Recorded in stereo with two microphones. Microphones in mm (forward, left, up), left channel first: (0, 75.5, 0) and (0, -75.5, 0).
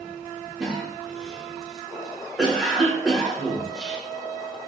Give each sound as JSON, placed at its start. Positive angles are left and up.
{"t": 0.6, "sound": "a cough", "side_deg": 0, "distance_m": 0.9}